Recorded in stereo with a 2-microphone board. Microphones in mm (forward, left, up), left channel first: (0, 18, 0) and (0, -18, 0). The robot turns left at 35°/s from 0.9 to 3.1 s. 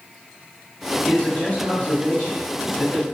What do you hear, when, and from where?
1.1 s a man speaking: 15° left (ahead or behind), 1.3 m